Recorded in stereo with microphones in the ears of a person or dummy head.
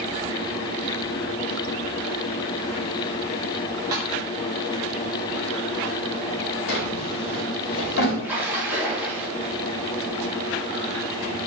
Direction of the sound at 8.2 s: 10° right (ahead or behind).